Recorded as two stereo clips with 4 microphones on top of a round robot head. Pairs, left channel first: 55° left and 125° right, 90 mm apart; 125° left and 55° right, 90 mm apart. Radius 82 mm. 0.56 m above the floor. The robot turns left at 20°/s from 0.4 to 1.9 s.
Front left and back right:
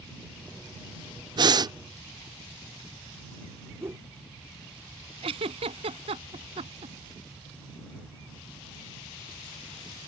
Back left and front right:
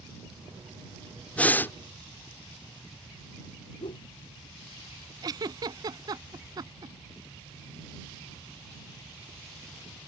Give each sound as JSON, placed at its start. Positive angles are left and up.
{"t": 1.4, "sound": "breathing", "azimuth_deg": -160}
{"t": 3.8, "sound": "a whoosh", "azimuth_deg": 170}
{"t": 5.2, "sound": "a giggle", "azimuth_deg": -105}